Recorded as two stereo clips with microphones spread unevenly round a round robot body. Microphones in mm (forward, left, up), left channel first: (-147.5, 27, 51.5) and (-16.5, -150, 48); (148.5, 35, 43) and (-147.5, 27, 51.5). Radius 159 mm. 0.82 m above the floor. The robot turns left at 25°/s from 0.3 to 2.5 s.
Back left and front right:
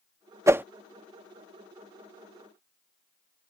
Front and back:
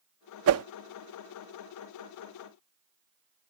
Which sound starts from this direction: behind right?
A whoosh, at 0.5 s.